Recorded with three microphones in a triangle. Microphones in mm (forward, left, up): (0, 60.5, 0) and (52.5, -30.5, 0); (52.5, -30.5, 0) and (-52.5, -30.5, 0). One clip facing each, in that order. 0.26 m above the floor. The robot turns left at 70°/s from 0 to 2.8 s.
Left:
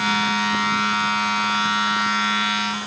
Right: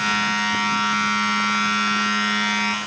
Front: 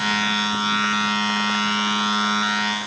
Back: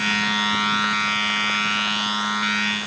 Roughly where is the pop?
No pop in this recording.